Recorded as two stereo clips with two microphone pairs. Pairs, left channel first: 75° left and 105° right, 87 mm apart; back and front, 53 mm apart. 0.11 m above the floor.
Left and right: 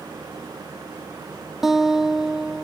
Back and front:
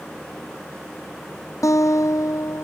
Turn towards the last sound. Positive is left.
turn(degrees=170)